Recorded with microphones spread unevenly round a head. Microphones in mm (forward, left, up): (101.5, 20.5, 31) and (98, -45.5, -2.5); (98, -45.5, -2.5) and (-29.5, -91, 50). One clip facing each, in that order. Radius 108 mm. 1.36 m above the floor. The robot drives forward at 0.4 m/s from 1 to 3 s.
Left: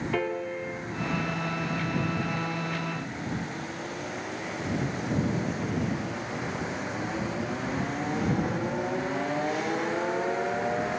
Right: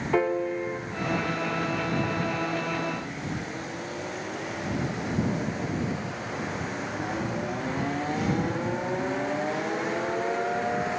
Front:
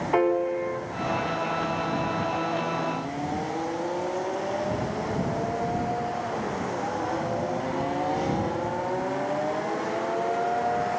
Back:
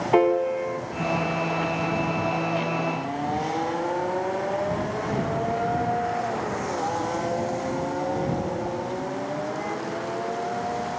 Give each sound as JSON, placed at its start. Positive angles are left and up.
{"t": 0.1, "sound": "a piano", "azimuth_deg": -85, "distance_m": 0.7}